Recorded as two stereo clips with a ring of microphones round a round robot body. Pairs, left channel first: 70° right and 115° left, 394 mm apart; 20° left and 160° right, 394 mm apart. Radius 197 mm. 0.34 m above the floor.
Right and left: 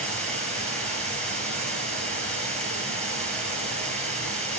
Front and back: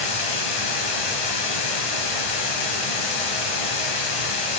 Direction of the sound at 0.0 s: 20° left.